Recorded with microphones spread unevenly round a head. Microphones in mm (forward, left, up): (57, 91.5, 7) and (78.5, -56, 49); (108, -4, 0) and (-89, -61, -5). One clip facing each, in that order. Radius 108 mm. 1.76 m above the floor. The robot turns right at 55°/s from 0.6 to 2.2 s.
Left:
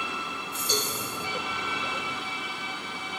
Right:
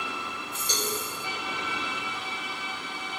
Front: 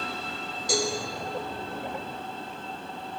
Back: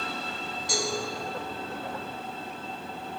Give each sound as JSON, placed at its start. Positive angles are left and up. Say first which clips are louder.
{"t": 0.7, "sound": "a cowbell", "louder": "left 2 dB, front 4 dB", "azimuth_deg": 5, "distance_m": 2.5}